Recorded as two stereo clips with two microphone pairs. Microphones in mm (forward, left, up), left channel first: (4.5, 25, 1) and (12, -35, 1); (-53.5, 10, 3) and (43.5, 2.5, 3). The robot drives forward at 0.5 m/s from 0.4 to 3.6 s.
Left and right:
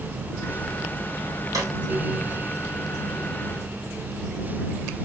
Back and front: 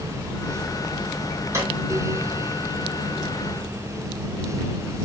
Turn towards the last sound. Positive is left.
turn(degrees=-100)